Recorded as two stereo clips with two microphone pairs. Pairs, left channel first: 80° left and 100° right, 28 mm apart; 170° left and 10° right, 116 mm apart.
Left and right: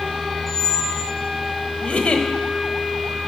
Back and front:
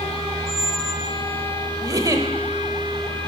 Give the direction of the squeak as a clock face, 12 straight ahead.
12 o'clock.